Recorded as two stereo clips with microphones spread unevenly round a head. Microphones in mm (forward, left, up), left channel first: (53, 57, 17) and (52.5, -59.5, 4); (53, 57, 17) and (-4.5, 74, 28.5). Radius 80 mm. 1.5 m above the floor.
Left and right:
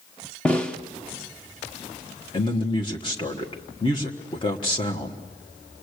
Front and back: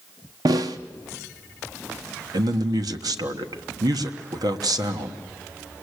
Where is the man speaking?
155° left, 1.4 m.